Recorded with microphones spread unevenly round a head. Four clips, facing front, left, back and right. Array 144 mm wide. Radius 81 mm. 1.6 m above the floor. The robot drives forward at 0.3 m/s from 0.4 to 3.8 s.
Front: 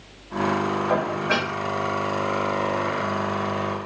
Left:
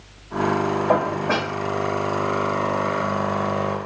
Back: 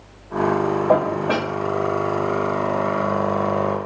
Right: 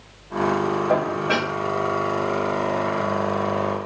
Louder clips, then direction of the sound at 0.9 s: Left 1 dB, back 5 dB; 155° left.